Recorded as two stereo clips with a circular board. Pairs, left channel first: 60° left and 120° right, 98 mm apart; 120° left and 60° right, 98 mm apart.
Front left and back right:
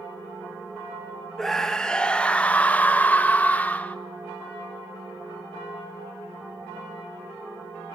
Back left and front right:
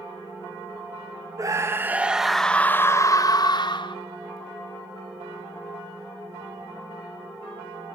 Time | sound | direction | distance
1.4 | a scream | 25° right | 0.9 m